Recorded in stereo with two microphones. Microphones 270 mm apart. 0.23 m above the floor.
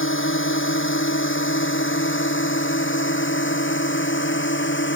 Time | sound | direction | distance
0.0 | a drone | 50° left (ahead or behind) | ?